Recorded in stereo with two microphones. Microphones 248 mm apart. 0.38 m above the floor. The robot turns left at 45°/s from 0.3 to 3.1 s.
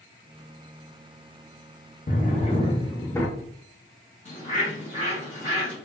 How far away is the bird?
About 1.7 m.